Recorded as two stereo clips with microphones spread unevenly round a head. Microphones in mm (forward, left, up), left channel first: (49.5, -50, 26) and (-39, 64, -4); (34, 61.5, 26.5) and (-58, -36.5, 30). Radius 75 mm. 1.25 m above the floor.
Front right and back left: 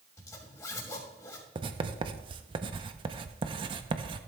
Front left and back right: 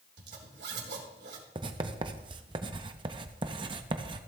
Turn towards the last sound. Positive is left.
turn(degrees=-170)